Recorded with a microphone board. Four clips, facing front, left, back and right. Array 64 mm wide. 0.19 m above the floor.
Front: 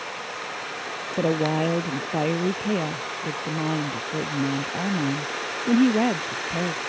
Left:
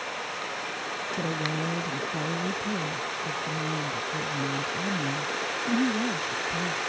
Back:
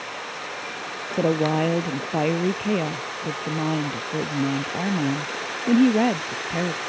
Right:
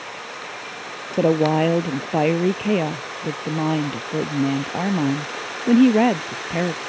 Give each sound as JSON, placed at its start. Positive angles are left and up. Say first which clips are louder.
{"t": 1.2, "sound": "a woman speaking", "louder": "right 15 dB, back 2 dB", "azimuth_deg": -95}